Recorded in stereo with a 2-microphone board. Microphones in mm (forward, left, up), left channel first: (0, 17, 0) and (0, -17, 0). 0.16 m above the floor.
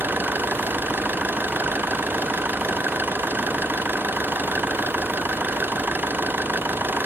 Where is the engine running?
65° right (ahead or behind).